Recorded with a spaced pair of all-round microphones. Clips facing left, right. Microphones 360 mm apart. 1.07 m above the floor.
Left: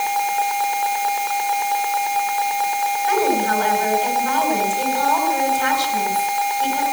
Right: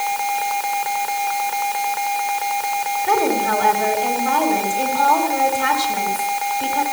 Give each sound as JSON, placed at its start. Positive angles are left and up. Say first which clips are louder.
{"t": 3.0, "sound": "a woman speaking", "louder": "even", "side_deg": -60, "distance_m": 5.5}